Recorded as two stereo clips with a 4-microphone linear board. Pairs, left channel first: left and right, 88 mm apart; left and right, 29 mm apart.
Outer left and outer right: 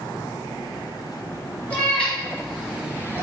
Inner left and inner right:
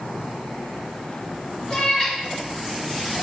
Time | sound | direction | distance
1.7 | a cat meowing | 20° left (ahead or behind) | 1.6 m